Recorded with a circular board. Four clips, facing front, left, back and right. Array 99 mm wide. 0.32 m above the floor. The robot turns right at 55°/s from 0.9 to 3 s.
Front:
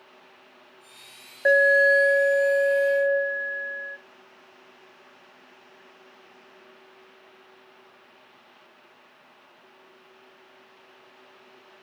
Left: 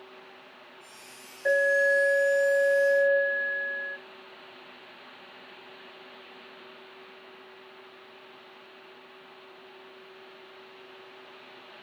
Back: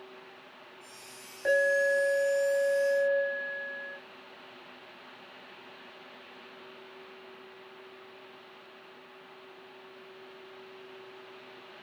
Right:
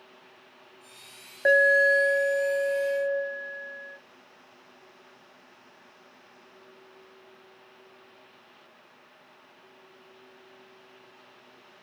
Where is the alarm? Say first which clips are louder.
Right 3 dB, front 7 dB; 55° right, 1.1 m; by 4.0 s 30° left, 1.1 m.